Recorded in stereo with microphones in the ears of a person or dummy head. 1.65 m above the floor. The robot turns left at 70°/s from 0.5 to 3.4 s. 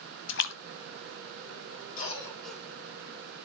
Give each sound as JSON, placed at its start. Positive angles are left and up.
{"t": 0.3, "sound": "a splash", "side_deg": 70, "distance_m": 1.1}
{"t": 2.0, "sound": "a cough", "azimuth_deg": 50, "distance_m": 3.5}